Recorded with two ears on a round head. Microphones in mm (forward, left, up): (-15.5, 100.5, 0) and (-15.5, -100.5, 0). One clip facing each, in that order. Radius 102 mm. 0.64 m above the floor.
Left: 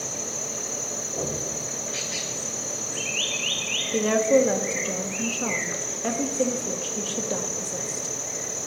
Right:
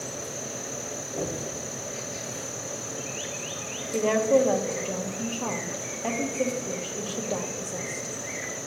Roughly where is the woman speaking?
Centre.